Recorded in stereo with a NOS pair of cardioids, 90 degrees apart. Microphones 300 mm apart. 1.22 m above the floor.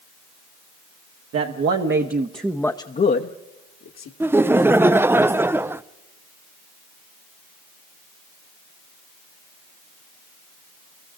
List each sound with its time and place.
1.3 s a man speaking: 55° right, 1.9 m; by 4.1 s 65° left, 2 m
4.2 s laughter: 10° right, 0.7 m